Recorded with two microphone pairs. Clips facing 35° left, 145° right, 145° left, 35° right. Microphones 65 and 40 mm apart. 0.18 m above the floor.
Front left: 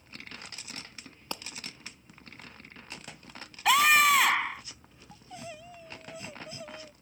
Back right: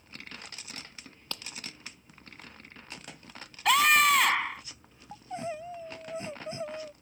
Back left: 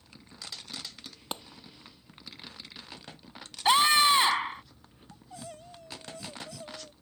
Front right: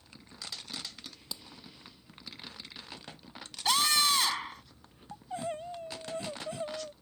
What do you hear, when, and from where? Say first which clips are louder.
1.3 s a clap: front left 3 dB, back left 7 dB; 110° left
3.6 s a scream: front left 1 dB, back left 6 dB; 125° left
5.1 s crying: back right 8 dB, front right 9 dB; 85° right